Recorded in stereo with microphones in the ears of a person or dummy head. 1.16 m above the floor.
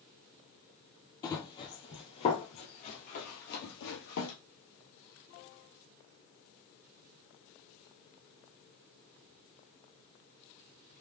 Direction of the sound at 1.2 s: 25° left (ahead or behind).